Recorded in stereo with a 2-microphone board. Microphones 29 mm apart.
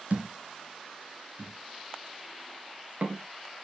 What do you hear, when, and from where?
0.1 s a thud: 70° right (ahead or behind), 3 m